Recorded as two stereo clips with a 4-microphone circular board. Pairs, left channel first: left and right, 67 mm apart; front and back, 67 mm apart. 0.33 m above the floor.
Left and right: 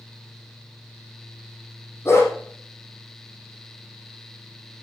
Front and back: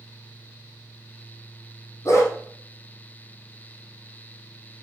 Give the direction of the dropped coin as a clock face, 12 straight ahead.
No dropped coin in this recording.